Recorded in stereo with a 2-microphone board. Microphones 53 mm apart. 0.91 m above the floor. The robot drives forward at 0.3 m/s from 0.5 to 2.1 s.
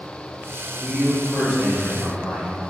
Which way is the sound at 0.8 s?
10° right (ahead or behind).